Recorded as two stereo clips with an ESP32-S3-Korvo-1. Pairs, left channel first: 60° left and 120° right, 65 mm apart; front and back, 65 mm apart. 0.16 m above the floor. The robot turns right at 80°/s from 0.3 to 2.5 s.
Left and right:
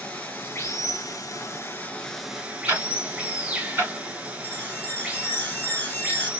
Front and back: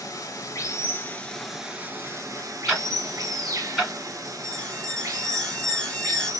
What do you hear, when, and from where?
0.0 s running water: 5° right, 0.7 m; by 6.4 s 170° left, 0.7 m
2.7 s ticking: 95° right, 1.5 m
4.4 s an alarm: 60° left, 0.8 m